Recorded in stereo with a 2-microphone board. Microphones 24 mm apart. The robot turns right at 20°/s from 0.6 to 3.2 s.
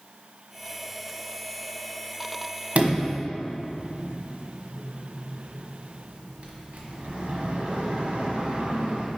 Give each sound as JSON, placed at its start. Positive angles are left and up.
{"t": 2.8, "sound": "a sliding door", "side_deg": -65, "distance_m": 1.3}